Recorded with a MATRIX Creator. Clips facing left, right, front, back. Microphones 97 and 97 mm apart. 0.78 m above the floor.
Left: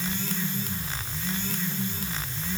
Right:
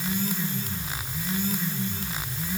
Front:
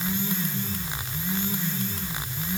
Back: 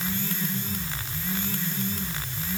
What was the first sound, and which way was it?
Only background noise.